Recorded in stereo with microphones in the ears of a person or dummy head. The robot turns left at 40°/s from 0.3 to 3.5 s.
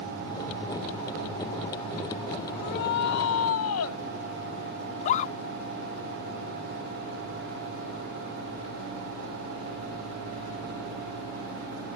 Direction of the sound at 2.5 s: 125° left.